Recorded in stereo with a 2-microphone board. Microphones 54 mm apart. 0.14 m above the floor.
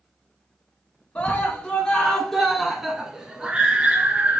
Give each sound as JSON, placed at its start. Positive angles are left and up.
{"t": 1.1, "sound": "a scream", "side_deg": 20, "distance_m": 1.5}